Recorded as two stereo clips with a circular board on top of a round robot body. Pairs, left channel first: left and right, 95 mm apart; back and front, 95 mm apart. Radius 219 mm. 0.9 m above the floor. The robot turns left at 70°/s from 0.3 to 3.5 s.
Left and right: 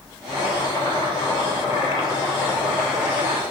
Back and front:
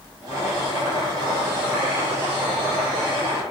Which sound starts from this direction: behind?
Chopping, at 0.3 s.